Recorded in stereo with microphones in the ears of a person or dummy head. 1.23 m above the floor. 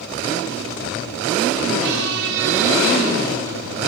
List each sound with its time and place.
1.8 s a squeak: 70° right (ahead or behind), 0.5 m